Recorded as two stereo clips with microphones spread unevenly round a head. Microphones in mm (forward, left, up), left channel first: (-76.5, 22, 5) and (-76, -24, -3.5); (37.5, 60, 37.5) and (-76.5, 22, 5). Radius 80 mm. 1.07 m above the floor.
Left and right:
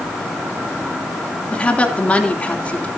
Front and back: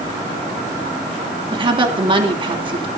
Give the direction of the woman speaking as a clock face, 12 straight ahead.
7 o'clock.